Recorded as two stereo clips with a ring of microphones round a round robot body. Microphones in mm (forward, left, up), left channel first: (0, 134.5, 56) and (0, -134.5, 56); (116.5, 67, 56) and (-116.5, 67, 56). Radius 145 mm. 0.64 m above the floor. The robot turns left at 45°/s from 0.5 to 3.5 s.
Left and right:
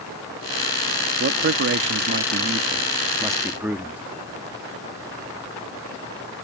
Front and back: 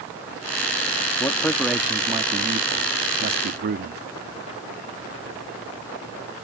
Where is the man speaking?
70° right; by 4.0 s 170° right.